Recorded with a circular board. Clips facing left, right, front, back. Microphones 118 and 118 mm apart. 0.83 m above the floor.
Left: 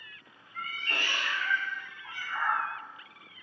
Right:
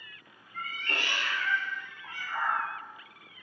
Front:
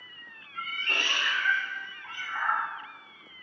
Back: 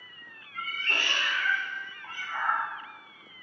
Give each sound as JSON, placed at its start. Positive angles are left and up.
{"t": 0.5, "sound": "a cat meowing", "azimuth_deg": -60, "distance_m": 0.8}